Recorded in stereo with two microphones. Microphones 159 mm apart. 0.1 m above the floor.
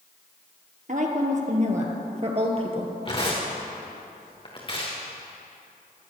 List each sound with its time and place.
0.9 s a woman speaking: 55° right (ahead or behind), 2.5 m; by 2.9 s 35° right (ahead or behind), 3 m
3.0 s tearing paper: 30° left (ahead or behind), 3.5 m